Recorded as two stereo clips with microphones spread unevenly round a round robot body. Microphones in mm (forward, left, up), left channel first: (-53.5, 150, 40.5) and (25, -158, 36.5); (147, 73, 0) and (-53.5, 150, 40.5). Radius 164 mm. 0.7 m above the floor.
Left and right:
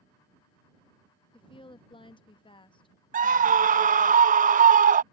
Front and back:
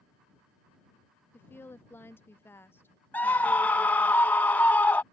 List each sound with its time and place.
1.3 s a woman speaking: 35° left
3.1 s a scream: 65° right